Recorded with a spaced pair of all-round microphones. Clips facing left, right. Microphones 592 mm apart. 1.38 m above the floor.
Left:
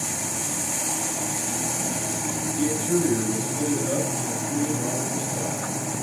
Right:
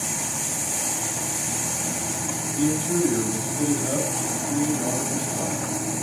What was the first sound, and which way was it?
A man speaking, 10° right (ahead or behind).